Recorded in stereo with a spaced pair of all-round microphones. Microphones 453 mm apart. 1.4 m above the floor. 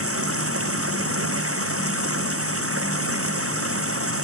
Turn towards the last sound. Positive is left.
turn(degrees=-30)  # may be behind; listen again after turning